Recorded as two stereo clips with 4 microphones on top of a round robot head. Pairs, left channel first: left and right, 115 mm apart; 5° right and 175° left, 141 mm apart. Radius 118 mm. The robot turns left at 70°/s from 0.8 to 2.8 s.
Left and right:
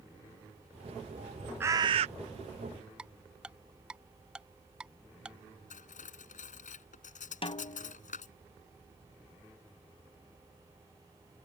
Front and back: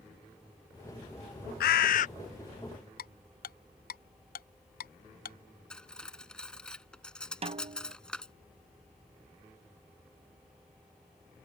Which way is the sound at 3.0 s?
5° right.